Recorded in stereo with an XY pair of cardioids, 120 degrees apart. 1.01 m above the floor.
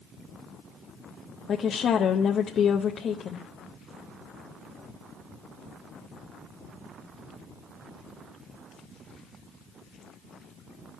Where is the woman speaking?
45° left, 0.6 m.